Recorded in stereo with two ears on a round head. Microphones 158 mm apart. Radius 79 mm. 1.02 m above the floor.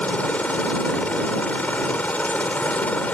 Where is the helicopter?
5° left (ahead or behind).